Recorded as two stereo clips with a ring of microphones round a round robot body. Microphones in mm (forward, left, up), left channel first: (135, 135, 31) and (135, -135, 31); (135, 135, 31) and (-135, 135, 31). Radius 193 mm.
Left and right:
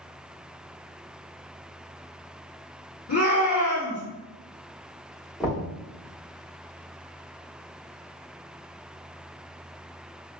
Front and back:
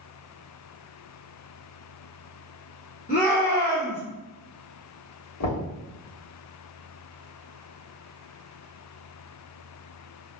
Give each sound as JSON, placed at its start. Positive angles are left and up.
{"t": 3.1, "sound": "a shout", "azimuth_deg": 55, "distance_m": 1.5}
{"t": 5.4, "sound": "knocking", "azimuth_deg": 0, "distance_m": 1.4}